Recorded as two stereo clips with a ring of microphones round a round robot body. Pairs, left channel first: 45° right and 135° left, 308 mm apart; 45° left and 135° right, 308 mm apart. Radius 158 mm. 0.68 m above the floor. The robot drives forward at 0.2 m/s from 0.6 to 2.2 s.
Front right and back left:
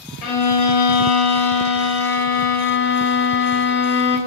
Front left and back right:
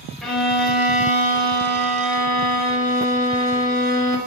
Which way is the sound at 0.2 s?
45° right.